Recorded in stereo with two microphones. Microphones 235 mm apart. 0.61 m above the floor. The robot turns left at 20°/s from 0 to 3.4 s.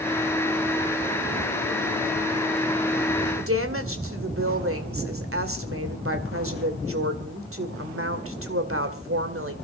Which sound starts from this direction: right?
A woman speaking, at 3.4 s.